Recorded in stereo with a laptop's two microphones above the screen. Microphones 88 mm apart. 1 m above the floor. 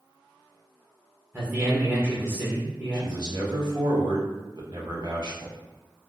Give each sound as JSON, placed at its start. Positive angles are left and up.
{"t": 1.3, "sound": "a man speaking", "side_deg": -15, "distance_m": 0.7}
{"t": 2.9, "sound": "a man speaking", "side_deg": -55, "distance_m": 0.9}